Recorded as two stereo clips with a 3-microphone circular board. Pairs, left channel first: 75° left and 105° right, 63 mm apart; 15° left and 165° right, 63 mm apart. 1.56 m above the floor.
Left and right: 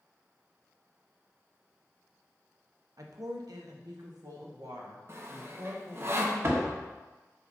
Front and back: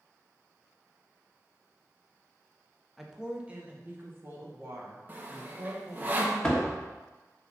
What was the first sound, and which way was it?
A woman speaking, 80° right.